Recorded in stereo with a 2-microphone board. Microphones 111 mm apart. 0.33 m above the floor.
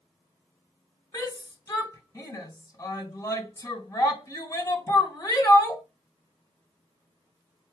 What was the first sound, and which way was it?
A shout, 30° left (ahead or behind).